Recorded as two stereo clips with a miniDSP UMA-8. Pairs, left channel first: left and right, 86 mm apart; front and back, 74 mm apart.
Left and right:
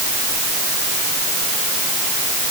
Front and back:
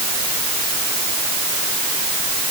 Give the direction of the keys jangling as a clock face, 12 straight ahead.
I don't hear keys jangling.